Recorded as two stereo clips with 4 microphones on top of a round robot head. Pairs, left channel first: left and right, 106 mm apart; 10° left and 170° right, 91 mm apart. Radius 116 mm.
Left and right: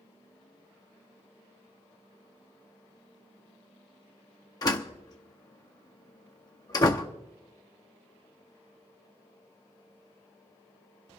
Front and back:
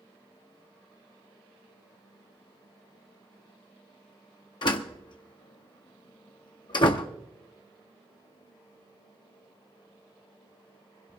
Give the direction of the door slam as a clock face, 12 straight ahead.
11 o'clock.